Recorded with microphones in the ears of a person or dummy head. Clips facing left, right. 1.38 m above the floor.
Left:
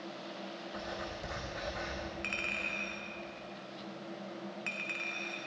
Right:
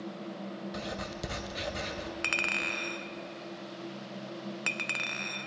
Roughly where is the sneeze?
No sneeze in this recording.